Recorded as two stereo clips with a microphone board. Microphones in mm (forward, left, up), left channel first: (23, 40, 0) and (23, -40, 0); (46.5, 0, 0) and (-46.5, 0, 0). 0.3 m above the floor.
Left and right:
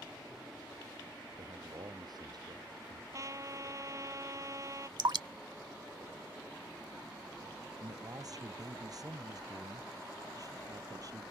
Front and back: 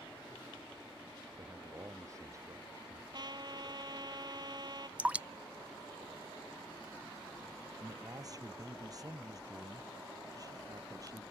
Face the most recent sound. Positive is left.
turn(degrees=-130)